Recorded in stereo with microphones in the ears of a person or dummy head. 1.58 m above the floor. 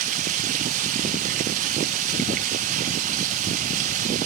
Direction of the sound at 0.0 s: 45° right (ahead or behind).